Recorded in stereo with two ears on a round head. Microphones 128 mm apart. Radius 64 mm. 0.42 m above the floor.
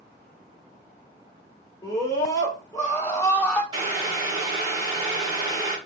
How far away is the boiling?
About 1.5 m.